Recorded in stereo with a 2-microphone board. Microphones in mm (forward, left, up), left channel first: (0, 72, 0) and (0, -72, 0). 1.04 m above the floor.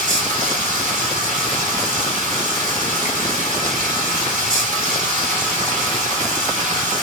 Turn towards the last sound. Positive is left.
turn(degrees=-60)  # may be behind; listen again after turning